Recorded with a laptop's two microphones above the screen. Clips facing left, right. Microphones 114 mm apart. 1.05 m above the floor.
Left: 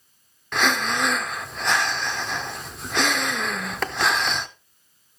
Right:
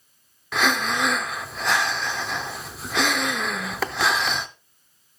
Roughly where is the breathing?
Centre.